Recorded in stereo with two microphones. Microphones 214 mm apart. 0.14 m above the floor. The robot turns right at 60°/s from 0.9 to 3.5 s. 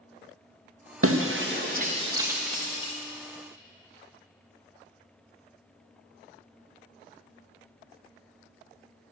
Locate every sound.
1.0 s breaking glass: 85° right, 2.5 m; by 2.9 s 25° left (ahead or behind), 2.5 m